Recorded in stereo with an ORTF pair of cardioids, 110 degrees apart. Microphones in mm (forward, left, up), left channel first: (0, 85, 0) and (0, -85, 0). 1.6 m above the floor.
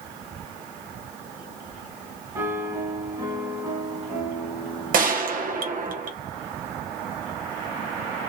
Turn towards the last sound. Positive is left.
turn(degrees=-55)